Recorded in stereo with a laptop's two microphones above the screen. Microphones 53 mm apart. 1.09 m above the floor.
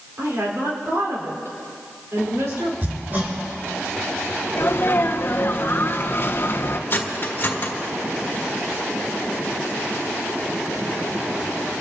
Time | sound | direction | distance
0.2 | a woman speaking | 60° right (ahead or behind) | 4 m
2.8 | hammering | 40° right (ahead or behind) | 2.5 m
4.6 | a sneeze | 45° left (ahead or behind) | 1.0 m
6.9 | cutlery clinking | 40° left (ahead or behind) | 1.5 m